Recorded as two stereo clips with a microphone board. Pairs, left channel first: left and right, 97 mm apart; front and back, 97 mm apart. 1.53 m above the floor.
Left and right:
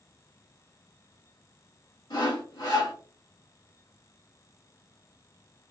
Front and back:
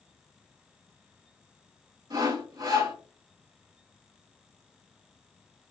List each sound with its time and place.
2.1 s sawing: 130° left, 1.2 m